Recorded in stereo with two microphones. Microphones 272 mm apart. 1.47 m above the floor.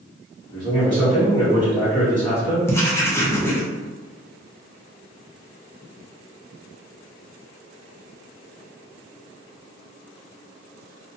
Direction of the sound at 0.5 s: 20° left (ahead or behind).